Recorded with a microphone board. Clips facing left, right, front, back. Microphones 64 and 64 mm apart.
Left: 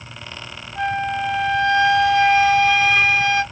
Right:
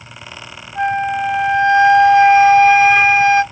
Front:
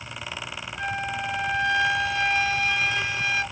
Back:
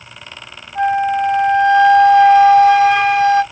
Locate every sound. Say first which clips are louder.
0.8 s a flute: right 5 dB, back 15 dB; 150° right, 1.2 m